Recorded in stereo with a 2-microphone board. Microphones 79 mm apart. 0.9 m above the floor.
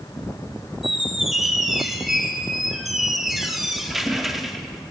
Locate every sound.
0.8 s a squeak: 5° right (ahead or behind), 0.6 m